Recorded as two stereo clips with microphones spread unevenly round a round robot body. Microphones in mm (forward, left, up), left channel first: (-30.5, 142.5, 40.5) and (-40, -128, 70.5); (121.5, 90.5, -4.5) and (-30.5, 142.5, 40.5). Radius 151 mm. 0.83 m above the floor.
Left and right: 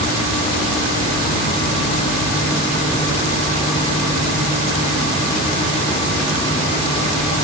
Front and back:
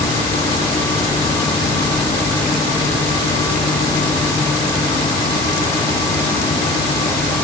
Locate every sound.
Only background noise.